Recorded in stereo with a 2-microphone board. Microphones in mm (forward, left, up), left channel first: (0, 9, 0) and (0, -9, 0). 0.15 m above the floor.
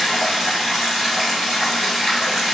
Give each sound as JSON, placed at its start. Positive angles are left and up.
{"t": 0.0, "sound": "running water", "side_deg": -10, "distance_m": 1.7}